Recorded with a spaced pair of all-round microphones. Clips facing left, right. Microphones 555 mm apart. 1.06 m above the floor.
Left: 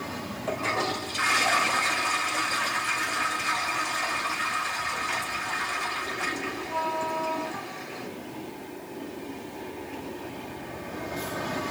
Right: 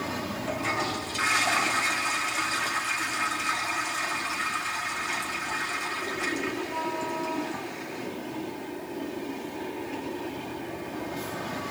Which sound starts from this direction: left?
A toilet flushing, at 0.5 s.